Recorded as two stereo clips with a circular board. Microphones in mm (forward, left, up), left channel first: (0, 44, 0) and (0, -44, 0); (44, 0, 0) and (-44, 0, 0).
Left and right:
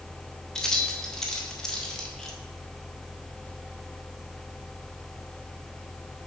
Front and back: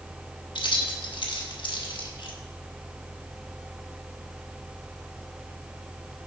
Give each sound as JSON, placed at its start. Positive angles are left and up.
{"t": 0.6, "sound": "keys jangling", "azimuth_deg": 5, "distance_m": 1.2}